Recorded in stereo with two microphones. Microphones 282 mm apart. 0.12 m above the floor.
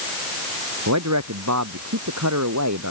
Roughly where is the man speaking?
Right.